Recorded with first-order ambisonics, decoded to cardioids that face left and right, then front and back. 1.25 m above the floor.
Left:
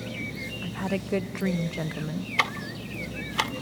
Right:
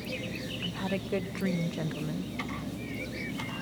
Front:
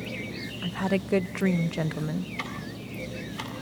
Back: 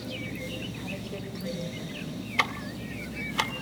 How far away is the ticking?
About 1.8 m.